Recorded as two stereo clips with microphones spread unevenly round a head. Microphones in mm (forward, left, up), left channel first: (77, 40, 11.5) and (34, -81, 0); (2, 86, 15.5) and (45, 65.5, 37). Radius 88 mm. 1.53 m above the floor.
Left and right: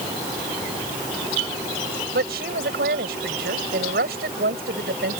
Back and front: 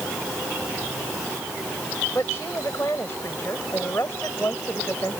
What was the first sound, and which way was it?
A woman speaking, 135° right.